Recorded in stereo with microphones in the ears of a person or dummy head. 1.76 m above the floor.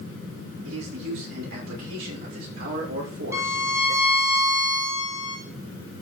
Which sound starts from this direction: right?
A man speaking, at 0.7 s.